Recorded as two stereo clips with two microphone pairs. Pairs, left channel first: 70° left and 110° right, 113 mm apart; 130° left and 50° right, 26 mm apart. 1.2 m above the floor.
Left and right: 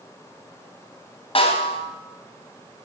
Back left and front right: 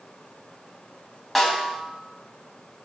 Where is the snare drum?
30° left, 4 m.